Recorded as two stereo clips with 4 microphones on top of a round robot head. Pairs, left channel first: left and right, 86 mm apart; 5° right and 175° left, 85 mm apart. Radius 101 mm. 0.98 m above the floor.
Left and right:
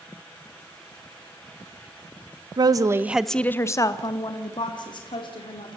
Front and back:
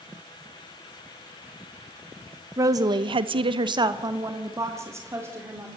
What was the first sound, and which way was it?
A woman speaking, 125° right.